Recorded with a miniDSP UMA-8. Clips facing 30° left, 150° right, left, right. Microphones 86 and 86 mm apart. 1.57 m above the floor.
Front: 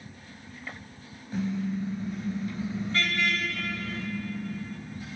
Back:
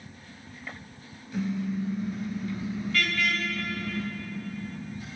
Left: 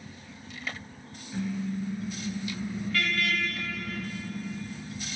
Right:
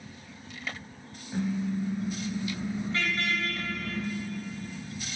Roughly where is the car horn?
Ahead right.